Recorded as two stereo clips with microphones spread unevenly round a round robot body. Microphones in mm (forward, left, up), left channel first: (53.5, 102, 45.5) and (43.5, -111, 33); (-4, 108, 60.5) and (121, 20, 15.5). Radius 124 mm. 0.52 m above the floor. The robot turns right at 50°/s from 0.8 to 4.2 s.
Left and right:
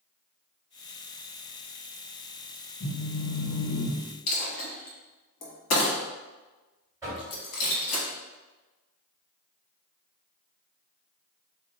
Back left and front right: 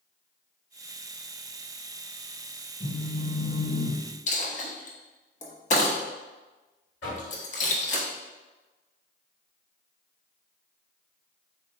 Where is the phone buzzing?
100° left, 1.1 m; by 4.0 s 160° left, 1.1 m.